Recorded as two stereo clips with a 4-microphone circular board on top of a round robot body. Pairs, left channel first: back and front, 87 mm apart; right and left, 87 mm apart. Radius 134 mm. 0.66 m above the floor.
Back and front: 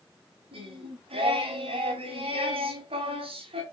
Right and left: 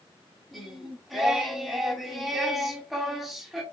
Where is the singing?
Straight ahead, 2.5 m.